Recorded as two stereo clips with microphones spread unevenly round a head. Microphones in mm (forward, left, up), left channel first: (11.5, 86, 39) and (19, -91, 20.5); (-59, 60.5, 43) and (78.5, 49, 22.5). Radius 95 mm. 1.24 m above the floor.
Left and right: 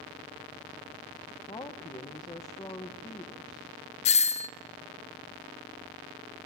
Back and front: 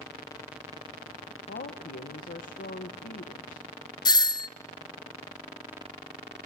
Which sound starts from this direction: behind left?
A doorbell, at 4.0 s.